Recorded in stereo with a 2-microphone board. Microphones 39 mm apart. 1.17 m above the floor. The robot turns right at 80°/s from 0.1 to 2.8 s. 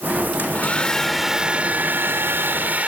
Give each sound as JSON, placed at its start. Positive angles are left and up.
{"t": 0.4, "sound": "a hair dryer", "azimuth_deg": 120}